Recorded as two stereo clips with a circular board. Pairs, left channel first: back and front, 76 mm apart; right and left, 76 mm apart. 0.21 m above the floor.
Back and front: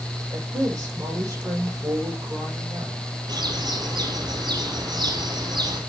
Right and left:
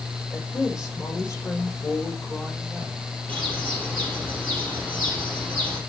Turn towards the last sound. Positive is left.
turn(degrees=-25)